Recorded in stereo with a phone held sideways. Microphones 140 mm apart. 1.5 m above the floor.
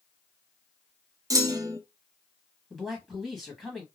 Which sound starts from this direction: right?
A clunk, at 1.3 s.